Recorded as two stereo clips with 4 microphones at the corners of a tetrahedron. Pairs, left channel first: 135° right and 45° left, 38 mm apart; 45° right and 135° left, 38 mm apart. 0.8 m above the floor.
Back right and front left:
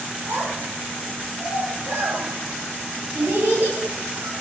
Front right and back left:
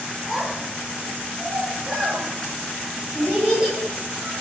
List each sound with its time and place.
0.3 s a child speaking: 50° left, 8.5 m; by 4.3 s 70° left, 8.5 m